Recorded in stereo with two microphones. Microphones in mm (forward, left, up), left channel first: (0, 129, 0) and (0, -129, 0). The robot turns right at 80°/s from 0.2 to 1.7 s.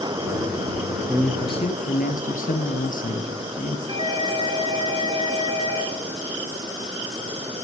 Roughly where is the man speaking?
Ahead.